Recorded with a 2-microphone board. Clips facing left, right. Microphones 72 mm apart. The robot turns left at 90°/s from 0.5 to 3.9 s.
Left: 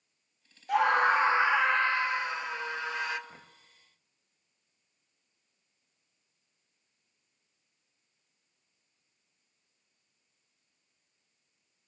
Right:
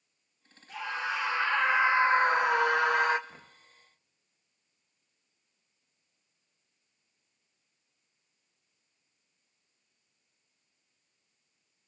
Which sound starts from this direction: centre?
Knocking, at 3.3 s.